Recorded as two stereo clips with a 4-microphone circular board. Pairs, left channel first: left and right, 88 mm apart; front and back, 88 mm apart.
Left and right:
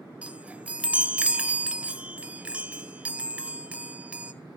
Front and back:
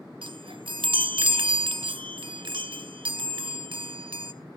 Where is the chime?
165° right, 0.6 m.